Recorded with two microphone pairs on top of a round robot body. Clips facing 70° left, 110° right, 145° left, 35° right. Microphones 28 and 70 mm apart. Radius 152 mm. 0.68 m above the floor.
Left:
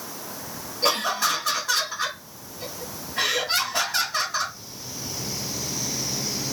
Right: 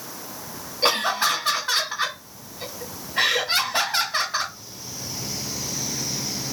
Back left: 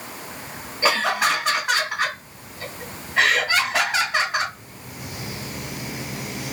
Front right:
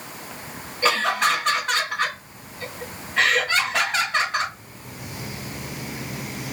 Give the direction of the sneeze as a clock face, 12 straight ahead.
No sneeze in this recording.